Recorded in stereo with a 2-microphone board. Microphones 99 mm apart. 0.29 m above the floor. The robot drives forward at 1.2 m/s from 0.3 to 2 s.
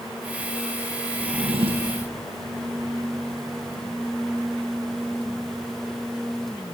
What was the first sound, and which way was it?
A drawer, 70° right (ahead or behind).